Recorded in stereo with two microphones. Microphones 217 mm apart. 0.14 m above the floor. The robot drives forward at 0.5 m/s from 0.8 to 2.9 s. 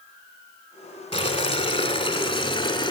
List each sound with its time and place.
1.1 s boiling: 25° left (ahead or behind), 1.6 m; by 2.9 s 20° left (ahead or behind), 1.8 m